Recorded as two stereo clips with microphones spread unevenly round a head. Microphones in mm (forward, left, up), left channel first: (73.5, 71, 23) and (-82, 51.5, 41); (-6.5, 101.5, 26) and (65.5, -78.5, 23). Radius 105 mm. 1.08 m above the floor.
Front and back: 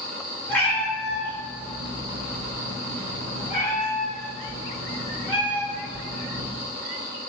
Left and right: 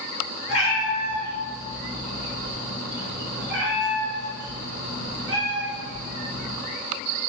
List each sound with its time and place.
0.5 s a cat meowing: 90° left, 1.1 m; by 6.5 s 65° right, 2.5 m